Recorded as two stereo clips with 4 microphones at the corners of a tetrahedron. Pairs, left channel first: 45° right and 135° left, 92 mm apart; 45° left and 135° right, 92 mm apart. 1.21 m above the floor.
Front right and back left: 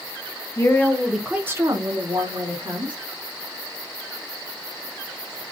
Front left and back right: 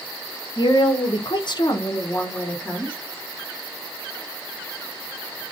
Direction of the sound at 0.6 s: 10° left.